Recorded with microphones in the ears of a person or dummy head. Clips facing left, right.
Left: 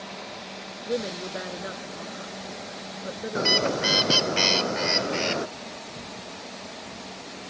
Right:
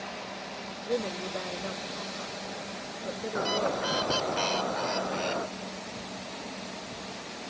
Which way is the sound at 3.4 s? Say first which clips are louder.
Left 4 dB; 40° left (ahead or behind).